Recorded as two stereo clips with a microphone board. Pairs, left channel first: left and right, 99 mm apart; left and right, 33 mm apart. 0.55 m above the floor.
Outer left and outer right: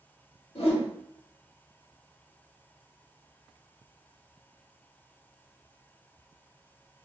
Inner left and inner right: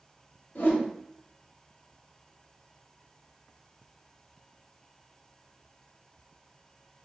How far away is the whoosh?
About 0.9 m.